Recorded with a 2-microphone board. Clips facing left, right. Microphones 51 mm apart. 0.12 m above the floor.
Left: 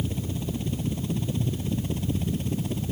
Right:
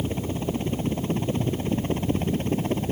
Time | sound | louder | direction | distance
0.0 | a helicopter | right 4 dB | 40° right (ahead or behind) | ?